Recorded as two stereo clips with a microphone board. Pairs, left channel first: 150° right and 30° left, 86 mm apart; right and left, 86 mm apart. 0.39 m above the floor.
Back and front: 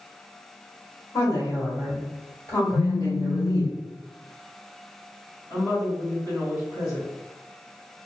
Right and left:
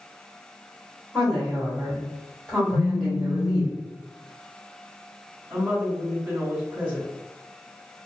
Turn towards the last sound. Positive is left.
turn(degrees=165)